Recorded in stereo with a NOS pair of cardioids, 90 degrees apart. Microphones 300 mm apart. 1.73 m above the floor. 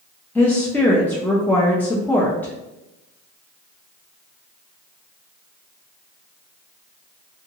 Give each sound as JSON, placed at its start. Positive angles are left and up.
{"t": 0.3, "sound": "a woman speaking", "azimuth_deg": 5, "distance_m": 0.6}